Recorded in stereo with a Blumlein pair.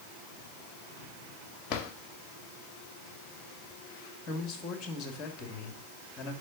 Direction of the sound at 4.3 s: 20° left.